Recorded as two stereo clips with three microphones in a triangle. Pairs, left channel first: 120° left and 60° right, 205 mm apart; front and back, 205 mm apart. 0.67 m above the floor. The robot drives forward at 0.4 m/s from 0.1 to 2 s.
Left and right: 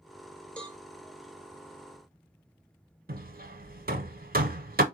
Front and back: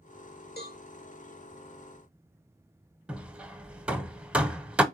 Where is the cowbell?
35° left, 1.0 m; by 0.8 s 40° left, 0.9 m.